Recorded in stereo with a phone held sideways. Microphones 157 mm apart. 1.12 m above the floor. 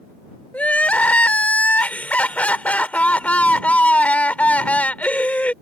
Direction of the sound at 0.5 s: 10° left (ahead or behind).